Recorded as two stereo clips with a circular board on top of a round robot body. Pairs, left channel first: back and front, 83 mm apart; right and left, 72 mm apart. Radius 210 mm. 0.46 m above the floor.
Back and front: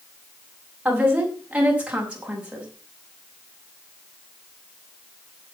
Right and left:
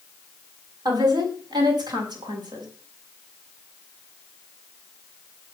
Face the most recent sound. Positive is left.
turn(degrees=80)